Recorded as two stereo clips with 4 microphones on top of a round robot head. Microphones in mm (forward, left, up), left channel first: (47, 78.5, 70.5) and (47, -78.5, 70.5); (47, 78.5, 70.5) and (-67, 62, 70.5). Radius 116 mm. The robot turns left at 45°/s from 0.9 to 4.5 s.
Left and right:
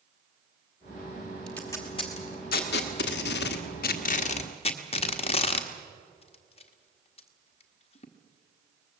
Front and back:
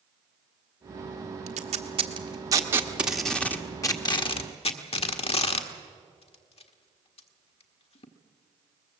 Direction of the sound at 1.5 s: 175° left.